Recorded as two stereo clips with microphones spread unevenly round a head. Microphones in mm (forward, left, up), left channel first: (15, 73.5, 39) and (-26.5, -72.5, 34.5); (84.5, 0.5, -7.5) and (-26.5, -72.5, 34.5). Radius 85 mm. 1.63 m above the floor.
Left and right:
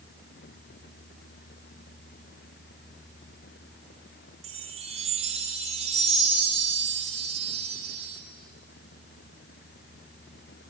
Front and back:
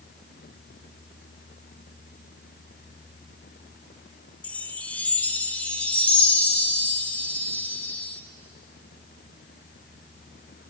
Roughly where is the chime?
Ahead right.